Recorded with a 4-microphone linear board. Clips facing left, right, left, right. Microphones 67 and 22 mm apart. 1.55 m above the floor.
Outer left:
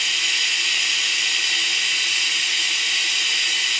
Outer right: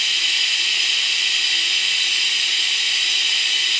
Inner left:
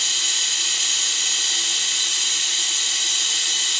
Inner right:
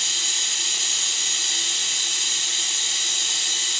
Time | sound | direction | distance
0.0 | running water | 15° left (ahead or behind) | 0.9 m